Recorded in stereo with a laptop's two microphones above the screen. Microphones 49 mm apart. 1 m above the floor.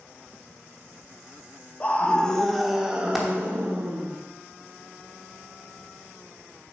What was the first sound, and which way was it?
A scream, 30° left (ahead or behind).